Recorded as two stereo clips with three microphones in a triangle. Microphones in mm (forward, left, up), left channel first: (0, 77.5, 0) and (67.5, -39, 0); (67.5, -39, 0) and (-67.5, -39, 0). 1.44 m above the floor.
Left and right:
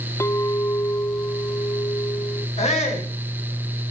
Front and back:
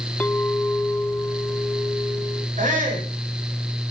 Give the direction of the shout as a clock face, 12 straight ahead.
7 o'clock.